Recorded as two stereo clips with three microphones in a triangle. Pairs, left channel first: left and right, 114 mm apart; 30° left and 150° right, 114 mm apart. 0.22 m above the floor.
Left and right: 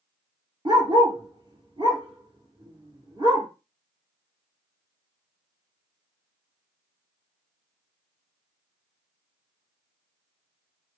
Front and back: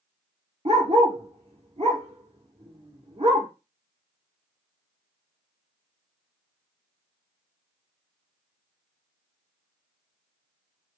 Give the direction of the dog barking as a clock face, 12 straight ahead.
5 o'clock.